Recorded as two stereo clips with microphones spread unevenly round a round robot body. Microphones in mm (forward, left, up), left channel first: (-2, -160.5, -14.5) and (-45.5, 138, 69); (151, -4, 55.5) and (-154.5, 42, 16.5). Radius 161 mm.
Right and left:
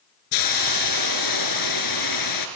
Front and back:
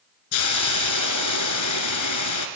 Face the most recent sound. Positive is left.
turn(degrees=-45)